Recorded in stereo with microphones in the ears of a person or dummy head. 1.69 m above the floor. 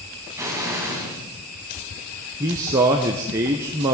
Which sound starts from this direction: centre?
A man speaking, at 2.4 s.